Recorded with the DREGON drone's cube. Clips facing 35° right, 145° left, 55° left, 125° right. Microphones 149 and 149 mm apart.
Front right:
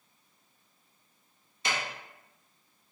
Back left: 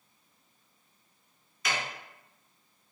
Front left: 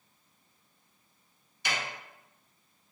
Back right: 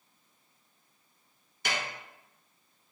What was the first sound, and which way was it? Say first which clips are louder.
A snare drum: even, back right 1 dB; 95° right.